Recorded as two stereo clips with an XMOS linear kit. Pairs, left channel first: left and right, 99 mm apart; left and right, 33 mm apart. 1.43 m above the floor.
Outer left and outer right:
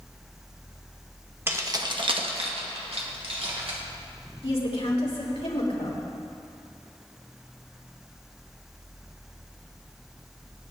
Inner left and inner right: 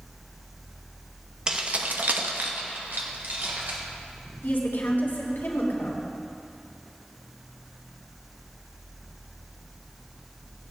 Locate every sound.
1.5 s keys jangling: 20° right (ahead or behind), 1.2 m; by 3.8 s 70° right (ahead or behind), 3 m
4.4 s a woman speaking: 75° left (ahead or behind), 3 m